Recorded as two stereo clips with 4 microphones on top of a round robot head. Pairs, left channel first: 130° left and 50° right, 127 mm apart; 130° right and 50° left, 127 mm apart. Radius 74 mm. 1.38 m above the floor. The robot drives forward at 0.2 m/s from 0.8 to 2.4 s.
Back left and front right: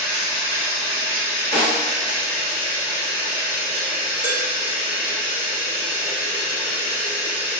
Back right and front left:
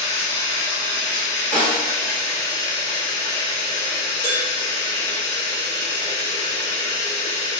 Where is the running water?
165° right, 1.4 m; by 7.6 s 170° right, 1.7 m.